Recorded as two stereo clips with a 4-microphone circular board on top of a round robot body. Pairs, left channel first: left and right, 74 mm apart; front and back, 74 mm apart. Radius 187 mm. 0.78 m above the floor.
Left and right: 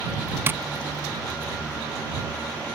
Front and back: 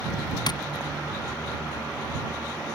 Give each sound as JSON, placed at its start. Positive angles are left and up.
{"t": 0.5, "sound": "tapping", "azimuth_deg": -25}